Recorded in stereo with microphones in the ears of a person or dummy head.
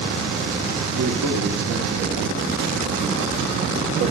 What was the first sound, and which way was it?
A man speaking, 55° right (ahead or behind).